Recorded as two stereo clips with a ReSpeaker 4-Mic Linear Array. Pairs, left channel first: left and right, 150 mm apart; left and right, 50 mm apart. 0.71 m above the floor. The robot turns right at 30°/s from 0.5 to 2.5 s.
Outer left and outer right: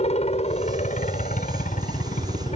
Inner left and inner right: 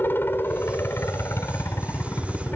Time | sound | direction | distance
0.0 | a helicopter | 45° left (ahead or behind) | ?